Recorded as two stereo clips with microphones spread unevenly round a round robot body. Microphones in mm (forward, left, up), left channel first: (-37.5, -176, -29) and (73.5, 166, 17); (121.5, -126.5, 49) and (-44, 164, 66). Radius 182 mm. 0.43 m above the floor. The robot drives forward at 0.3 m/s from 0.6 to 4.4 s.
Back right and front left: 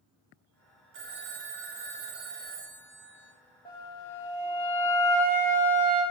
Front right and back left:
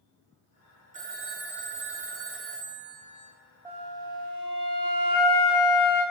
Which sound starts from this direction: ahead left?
A phone ringing, at 0.9 s.